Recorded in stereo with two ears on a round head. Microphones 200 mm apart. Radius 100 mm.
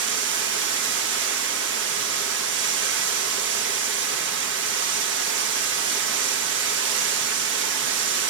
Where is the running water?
55° right (ahead or behind), 1.3 m.